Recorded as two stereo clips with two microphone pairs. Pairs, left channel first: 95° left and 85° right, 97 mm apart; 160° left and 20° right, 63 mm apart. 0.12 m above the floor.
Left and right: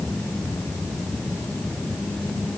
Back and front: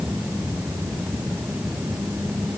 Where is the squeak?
I don't hear a squeak.